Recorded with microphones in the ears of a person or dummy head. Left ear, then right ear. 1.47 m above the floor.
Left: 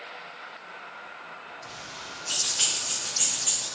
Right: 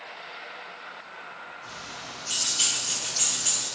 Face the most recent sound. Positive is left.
turn(degrees=-35)  # may be behind; listen again after turning